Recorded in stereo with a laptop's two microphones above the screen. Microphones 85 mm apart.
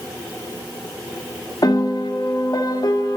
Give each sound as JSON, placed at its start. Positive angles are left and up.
{"t": 1.6, "sound": "a piano", "side_deg": 50, "distance_m": 1.6}